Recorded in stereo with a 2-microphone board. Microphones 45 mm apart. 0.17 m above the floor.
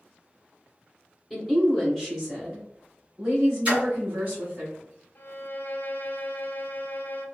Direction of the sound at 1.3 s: 10° left (ahead or behind).